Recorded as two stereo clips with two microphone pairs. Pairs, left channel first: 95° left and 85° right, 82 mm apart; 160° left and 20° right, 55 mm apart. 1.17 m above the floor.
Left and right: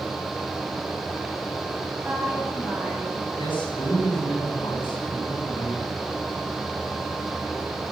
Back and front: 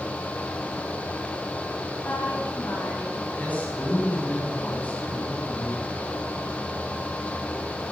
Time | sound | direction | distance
2.0 | a woman speaking | 160° right | 8.5 m
3.4 | a man speaking | 100° left | 9 m